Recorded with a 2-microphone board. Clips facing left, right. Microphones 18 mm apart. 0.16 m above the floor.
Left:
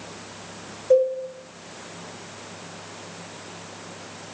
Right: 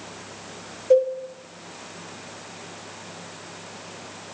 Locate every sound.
0.9 s a cowbell: 15° right (ahead or behind), 8 m